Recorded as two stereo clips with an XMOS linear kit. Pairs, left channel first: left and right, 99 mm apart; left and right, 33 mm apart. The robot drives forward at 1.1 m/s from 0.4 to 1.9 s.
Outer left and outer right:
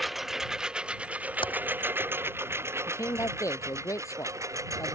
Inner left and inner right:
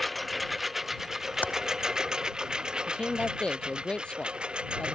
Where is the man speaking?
30° left (ahead or behind).